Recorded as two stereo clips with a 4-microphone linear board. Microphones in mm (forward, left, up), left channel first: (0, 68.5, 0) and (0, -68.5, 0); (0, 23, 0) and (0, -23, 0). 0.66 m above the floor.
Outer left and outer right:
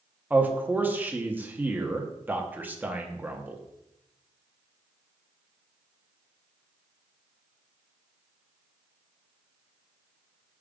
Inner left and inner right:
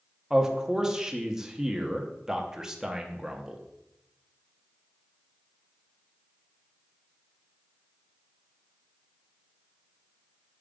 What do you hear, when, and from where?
0.3 s a man speaking: 15° right (ahead or behind), 0.8 m